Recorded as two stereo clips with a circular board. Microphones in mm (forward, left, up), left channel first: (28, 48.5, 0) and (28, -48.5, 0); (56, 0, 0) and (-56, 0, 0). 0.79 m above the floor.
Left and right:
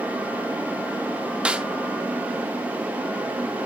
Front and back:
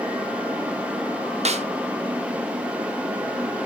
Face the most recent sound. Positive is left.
turn(degrees=-170)